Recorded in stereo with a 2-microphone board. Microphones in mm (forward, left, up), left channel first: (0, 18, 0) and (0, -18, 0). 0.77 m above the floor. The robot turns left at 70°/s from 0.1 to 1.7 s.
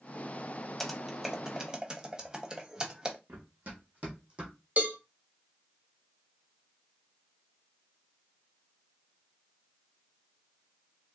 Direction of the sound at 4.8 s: 40° right (ahead or behind).